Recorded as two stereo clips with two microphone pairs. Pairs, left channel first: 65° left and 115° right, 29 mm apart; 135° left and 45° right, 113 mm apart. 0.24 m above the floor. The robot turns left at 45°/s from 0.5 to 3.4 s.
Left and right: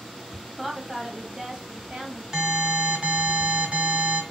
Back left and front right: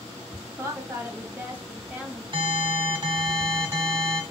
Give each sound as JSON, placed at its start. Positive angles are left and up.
{"t": 0.6, "sound": "a woman speaking", "azimuth_deg": -45, "distance_m": 1.3}
{"t": 2.3, "sound": "an alarm", "azimuth_deg": -45, "distance_m": 2.5}